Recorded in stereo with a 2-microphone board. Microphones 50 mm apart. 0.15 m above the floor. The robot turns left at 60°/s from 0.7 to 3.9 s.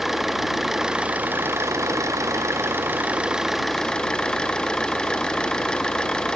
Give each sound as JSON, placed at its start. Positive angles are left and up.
{"t": 0.0, "sound": "an engine running", "azimuth_deg": -5}